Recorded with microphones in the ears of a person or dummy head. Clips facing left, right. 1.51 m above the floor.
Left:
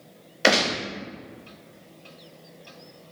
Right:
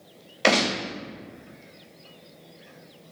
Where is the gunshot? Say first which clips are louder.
Even; 5° left (ahead or behind), 0.8 m.